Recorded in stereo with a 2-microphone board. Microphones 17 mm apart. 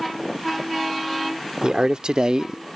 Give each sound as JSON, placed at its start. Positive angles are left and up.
{"t": 1.6, "sound": "a man speaking", "side_deg": -70}